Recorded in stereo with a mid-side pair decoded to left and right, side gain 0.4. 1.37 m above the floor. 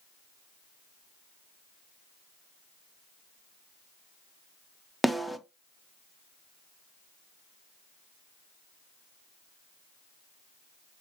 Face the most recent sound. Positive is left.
turn(degrees=0)